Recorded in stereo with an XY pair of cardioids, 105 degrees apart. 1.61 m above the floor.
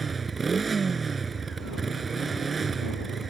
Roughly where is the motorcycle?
Ahead right.